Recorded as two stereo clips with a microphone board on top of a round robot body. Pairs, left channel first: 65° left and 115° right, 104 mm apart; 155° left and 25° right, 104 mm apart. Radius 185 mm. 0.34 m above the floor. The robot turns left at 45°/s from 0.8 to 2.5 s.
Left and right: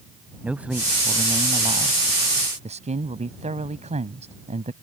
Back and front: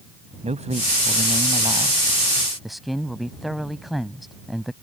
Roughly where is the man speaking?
Ahead right.